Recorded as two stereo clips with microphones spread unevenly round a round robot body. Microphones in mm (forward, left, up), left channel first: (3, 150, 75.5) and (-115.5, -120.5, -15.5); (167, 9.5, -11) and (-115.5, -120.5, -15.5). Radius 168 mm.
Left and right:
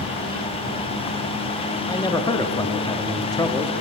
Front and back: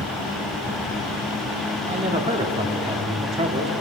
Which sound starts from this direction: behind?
A man speaking, at 1.9 s.